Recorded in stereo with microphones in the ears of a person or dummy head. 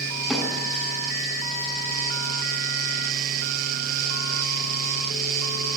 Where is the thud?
Centre (ahead or behind), 8 m.